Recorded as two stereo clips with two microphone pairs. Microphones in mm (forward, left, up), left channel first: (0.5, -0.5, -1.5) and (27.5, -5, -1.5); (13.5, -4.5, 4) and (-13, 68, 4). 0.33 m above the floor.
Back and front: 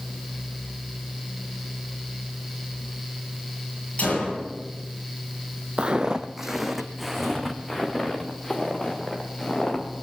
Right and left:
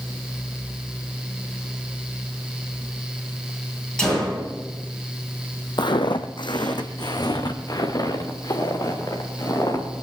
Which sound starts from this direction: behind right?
A gunshot, at 4.0 s.